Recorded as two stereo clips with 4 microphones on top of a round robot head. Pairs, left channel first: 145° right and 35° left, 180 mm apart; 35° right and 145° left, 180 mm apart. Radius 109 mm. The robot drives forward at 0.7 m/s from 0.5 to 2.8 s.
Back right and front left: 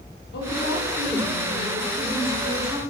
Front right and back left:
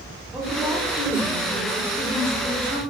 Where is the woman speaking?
125° right, 3.5 m; by 2.8 s 145° right, 4.5 m.